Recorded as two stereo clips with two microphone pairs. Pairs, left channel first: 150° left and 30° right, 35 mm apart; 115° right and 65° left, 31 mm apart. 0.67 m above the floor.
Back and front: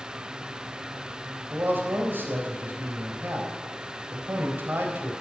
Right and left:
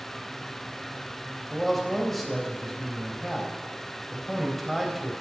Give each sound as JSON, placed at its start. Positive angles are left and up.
{"t": 1.5, "sound": "a man speaking", "azimuth_deg": -30, "distance_m": 4.0}